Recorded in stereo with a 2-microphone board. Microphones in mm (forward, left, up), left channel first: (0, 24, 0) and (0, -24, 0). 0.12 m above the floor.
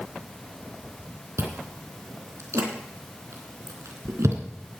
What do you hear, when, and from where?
1.4 s chewing: 75° right (ahead or behind), 3.5 m